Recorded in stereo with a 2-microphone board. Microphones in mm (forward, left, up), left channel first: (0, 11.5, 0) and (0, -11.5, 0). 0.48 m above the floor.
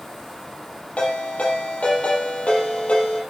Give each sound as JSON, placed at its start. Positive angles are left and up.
{"t": 1.0, "sound": "a ringtone", "side_deg": 75, "distance_m": 5.0}